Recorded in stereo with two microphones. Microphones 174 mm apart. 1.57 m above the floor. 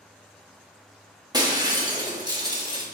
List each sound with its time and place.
1.3 s breaking glass: 25° right (ahead or behind), 1.1 m